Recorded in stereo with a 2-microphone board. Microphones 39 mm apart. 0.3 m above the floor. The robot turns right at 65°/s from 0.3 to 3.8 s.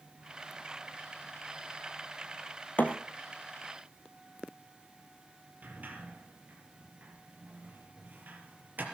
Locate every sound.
2.8 s a thud: 45° left (ahead or behind), 1.9 m; by 3.0 s 35° left (ahead or behind), 1.9 m
5.6 s a sliding door: 45° right (ahead or behind), 4.5 m